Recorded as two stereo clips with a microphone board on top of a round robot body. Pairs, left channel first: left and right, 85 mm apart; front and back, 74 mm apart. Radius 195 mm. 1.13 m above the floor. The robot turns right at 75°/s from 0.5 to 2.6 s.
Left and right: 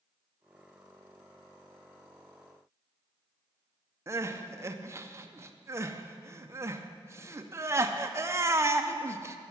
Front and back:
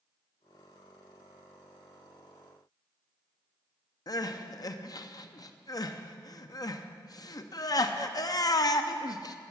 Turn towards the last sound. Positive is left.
turn(degrees=-30)